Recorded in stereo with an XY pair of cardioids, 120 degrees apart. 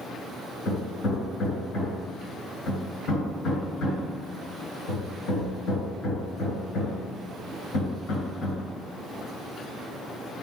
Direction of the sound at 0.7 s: 60° left.